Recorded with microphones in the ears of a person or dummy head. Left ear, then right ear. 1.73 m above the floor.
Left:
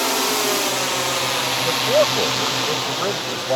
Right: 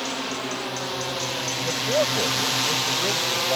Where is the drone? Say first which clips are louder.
Left 9 dB; 65° left (ahead or behind); by 3.6 s 25° right (ahead or behind).